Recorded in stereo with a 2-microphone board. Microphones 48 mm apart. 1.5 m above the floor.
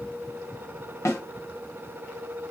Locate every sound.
1.1 s a snare drum: 70° left (ahead or behind), 1.1 m